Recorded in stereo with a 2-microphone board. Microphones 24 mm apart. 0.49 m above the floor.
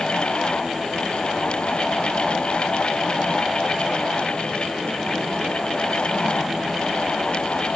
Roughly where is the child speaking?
I don't hear a child speaking.